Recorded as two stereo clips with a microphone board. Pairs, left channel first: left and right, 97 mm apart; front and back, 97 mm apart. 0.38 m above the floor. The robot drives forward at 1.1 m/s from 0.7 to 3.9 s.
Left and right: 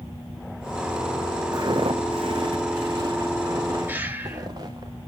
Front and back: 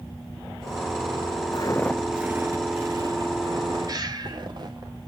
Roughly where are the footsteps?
Ahead right.